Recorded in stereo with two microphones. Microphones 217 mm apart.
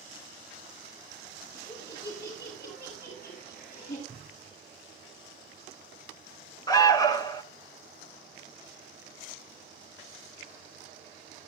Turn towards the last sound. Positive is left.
turn(degrees=15)  # may be behind; listen again after turning